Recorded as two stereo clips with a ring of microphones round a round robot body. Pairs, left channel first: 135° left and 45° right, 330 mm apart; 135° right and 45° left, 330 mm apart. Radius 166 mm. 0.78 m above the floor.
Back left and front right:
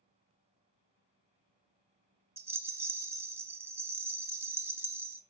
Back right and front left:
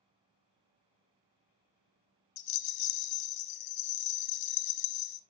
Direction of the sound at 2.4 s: 125° right.